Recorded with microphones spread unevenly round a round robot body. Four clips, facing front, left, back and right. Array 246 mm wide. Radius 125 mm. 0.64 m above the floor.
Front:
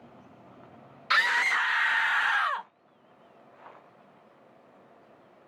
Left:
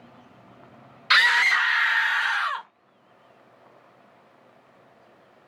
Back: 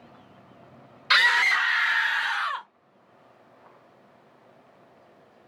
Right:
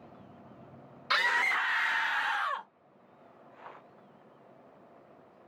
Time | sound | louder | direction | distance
1.1 | a scream | left 8 dB, back 4 dB | 120° right | 1.0 m